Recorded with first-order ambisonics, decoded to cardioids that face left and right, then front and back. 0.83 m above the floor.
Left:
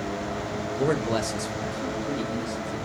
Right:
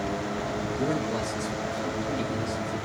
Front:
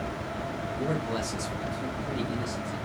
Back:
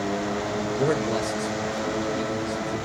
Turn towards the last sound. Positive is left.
turn(degrees=35)